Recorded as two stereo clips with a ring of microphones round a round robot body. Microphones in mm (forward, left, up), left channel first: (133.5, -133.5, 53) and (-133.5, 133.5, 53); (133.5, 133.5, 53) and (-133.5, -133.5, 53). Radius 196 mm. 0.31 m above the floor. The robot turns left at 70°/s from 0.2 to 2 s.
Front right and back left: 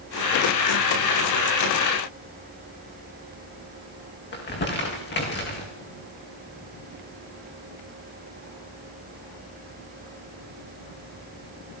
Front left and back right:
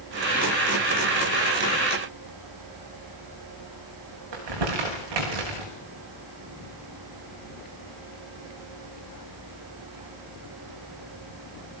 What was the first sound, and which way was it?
Crumpling, 110° right.